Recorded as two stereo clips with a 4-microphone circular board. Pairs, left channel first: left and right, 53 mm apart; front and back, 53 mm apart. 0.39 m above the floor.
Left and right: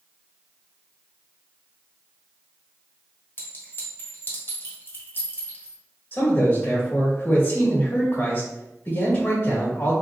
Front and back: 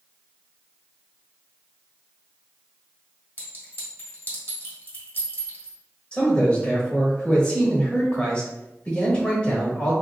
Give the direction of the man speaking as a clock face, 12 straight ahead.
10 o'clock.